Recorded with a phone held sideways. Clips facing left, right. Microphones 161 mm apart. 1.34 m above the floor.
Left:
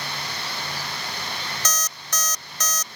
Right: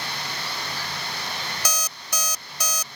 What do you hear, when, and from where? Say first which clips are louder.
1.6 s an alarm clock: even; 10° right (ahead or behind)